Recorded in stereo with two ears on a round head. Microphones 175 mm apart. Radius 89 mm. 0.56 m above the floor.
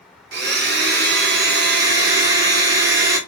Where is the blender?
55° right (ahead or behind), 0.8 m.